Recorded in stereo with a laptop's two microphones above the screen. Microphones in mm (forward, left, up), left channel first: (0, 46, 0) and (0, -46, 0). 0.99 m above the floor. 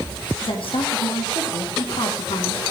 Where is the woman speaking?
70° left (ahead or behind), 1.9 m.